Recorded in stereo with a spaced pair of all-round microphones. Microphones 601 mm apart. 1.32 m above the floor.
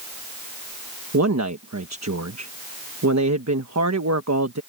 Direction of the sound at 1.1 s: 25° right (ahead or behind).